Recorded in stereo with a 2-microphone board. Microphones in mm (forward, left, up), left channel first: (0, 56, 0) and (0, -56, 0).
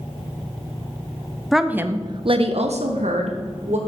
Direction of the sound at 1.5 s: Centre (ahead or behind).